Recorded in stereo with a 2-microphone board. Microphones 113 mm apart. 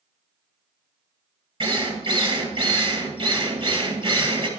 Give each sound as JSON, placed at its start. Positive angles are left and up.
{"t": 1.6, "sound": "a drill", "side_deg": -50, "distance_m": 2.5}